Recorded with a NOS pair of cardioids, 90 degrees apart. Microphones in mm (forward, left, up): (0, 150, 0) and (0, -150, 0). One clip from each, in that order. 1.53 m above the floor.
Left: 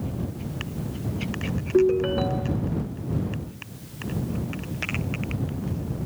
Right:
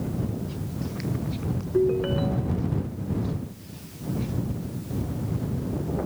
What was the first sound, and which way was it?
A ringtone, 45° left.